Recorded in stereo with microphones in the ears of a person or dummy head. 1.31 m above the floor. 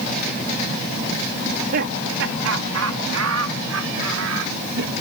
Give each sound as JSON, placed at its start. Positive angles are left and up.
{"t": 1.4, "sound": "laughter", "side_deg": -55}